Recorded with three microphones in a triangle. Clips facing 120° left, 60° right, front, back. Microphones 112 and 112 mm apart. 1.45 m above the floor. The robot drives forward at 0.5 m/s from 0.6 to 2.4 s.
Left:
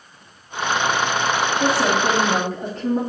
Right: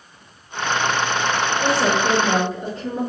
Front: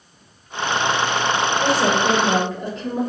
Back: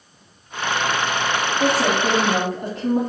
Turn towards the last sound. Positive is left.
turn(degrees=155)